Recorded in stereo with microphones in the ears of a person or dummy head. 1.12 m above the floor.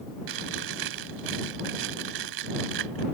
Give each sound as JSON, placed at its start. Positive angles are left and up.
{"t": 0.3, "sound": "chewing", "side_deg": -75}